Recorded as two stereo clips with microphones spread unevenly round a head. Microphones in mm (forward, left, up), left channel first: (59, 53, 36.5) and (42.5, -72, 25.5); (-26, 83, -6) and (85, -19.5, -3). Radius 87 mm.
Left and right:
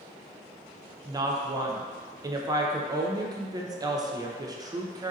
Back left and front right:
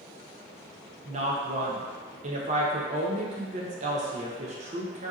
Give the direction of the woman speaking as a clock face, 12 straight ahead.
2 o'clock.